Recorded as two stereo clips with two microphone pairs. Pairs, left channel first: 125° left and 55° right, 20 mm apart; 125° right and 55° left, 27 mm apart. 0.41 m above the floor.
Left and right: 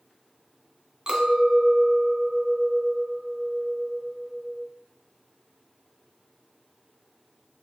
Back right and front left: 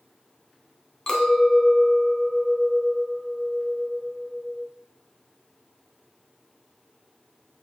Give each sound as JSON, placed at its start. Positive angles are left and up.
{"t": 1.1, "sound": "a clink", "azimuth_deg": -80, "distance_m": 1.0}